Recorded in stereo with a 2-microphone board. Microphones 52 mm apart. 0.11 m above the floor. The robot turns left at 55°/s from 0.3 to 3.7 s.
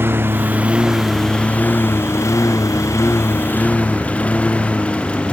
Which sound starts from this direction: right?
A lawn mower, at 0.0 s.